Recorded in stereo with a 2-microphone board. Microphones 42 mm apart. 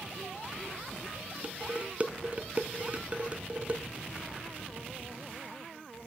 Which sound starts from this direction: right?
Dishes clattering, at 1.4 s.